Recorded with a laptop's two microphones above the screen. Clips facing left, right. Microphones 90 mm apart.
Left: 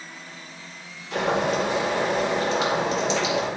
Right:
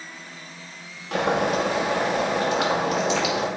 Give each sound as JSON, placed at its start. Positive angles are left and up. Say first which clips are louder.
{"t": 1.1, "sound": "boiling", "louder": "right 1 dB", "side_deg": -55, "distance_m": 1.8}